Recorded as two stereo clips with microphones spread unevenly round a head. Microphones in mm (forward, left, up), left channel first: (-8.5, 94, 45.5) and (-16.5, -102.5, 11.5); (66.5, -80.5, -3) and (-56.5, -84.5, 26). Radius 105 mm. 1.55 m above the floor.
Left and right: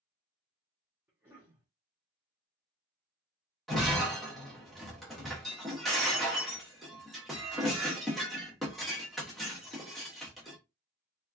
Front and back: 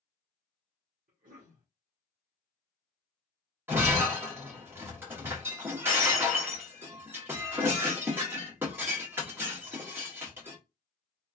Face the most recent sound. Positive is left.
turn(degrees=160)